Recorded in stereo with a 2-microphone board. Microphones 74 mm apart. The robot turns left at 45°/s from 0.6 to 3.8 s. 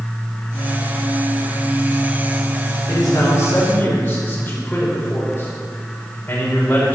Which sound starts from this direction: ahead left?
A man speaking, at 2.9 s.